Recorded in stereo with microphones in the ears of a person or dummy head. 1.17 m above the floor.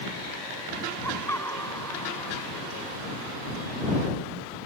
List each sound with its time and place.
1.0 s laughter: 10° left (ahead or behind); by 2.7 s 15° left (ahead or behind)